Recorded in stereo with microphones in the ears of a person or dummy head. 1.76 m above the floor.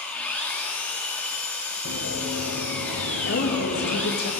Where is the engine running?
5° left (ahead or behind), 1.6 m.